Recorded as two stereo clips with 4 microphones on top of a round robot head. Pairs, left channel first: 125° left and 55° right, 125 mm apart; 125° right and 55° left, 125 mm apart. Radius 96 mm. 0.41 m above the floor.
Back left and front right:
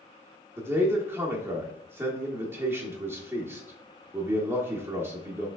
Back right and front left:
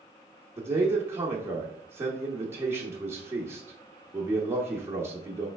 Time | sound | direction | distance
0.6 | a man speaking | straight ahead | 0.9 m